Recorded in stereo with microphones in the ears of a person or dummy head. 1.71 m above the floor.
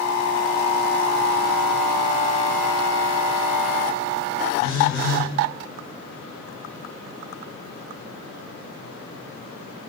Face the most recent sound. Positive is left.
turn(degrees=50)  # may be behind; listen again after turning